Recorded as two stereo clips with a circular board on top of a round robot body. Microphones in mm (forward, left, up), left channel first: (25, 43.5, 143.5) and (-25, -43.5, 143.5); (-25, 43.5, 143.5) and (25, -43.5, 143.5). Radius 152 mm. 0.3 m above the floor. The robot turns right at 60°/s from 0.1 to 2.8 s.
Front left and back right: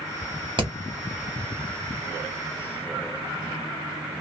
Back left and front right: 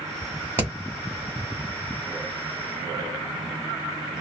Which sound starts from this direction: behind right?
Hammering, at 0.6 s.